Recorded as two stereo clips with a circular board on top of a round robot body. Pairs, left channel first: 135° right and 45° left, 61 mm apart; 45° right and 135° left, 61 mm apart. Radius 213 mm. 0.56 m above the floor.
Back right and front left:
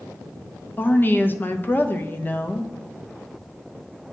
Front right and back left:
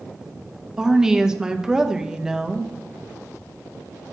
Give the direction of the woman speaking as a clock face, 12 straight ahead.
5 o'clock.